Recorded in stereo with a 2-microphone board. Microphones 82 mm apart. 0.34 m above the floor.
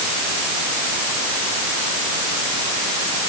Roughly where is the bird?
No bird in this recording.